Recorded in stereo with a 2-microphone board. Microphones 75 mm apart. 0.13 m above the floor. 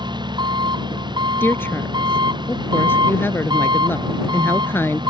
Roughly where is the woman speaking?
Left.